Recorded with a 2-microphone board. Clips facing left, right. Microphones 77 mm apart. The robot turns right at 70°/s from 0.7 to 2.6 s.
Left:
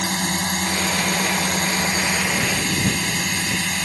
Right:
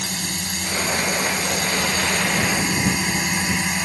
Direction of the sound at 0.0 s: 65° left.